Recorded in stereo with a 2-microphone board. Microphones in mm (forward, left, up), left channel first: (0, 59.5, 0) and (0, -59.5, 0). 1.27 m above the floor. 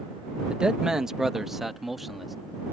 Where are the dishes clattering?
No dishes clattering in this recording.